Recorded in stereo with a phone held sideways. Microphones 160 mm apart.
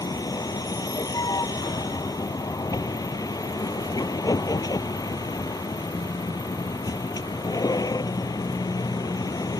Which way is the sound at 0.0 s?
20° left (ahead or behind).